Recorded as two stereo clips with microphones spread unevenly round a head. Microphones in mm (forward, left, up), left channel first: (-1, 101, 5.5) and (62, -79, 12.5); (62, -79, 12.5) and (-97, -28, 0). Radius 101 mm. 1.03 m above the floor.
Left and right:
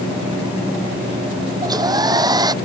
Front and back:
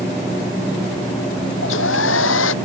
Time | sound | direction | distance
1.6 | a hair dryer | straight ahead | ?